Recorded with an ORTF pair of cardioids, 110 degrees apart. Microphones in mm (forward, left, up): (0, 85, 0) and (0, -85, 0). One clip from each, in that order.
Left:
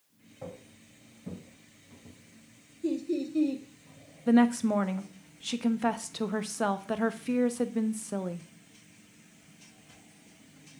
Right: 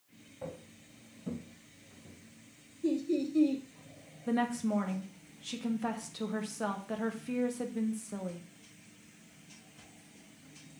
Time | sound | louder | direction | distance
0.4 | footsteps | even | 5° left | 4.5 m
2.8 | laughter | even | 5° left | 1.5 m
4.3 | a woman speaking | left 7 dB | 35° left | 1.0 m